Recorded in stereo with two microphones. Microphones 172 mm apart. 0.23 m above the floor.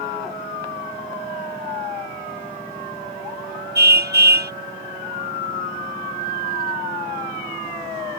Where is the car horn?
75° right (ahead or behind).